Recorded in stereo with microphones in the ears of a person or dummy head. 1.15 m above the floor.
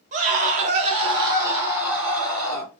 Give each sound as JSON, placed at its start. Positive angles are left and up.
{"t": 0.1, "sound": "a scream", "side_deg": -35, "distance_m": 0.7}